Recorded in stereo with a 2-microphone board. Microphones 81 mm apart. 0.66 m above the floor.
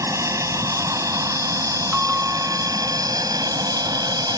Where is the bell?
15° right (ahead or behind).